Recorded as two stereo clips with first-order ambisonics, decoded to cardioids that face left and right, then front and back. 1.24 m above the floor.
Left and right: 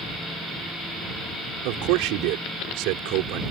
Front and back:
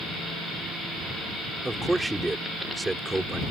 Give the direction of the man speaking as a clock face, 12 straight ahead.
3 o'clock.